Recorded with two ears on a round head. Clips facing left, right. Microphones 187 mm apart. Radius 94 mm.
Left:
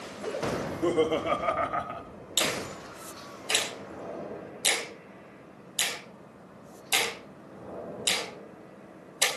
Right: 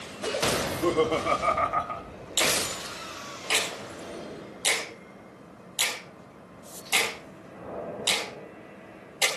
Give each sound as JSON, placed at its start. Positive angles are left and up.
{"t": 0.6, "sound": "laughter", "side_deg": 5, "distance_m": 2.5}
{"t": 2.4, "sound": "a finger snap", "side_deg": 20, "distance_m": 5.5}